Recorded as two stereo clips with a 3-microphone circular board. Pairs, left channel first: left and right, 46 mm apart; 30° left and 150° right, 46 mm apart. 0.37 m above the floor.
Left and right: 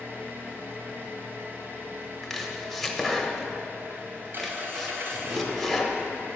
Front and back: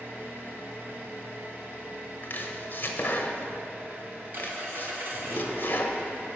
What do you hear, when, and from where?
0.0 s an engine running: 120° right, 1.5 m
2.2 s chopping: 10° left, 0.9 m